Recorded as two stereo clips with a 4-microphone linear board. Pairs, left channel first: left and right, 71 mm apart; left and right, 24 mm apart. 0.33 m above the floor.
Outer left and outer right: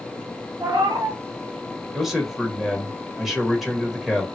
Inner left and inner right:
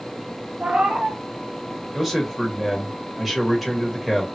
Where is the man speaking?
Centre (ahead or behind), 1.0 m.